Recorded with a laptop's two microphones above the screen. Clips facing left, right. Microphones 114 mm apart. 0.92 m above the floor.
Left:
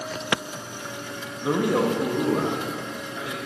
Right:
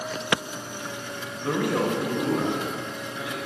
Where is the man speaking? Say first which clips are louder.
Left 3 dB; 15° left (ahead or behind), 1.4 m; by 3.4 s 50° left (ahead or behind), 3 m.